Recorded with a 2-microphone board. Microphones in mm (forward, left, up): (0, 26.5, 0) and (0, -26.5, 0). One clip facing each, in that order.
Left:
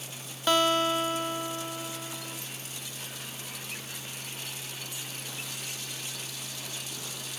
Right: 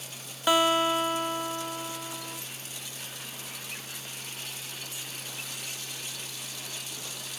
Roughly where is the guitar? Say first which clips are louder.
Right 1 dB; centre.